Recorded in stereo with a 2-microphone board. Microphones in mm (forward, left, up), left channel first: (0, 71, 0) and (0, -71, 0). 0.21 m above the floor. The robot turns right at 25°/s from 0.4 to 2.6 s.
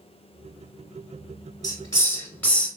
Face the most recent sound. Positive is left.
turn(degrees=10)  # may be behind; listen again after turning